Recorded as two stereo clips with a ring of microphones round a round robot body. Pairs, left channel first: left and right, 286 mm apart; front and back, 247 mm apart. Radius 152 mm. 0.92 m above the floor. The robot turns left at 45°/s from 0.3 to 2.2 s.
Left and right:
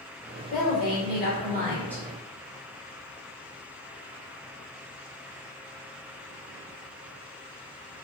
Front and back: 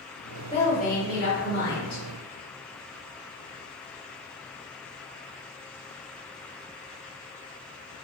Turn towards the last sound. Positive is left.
turn(degrees=-5)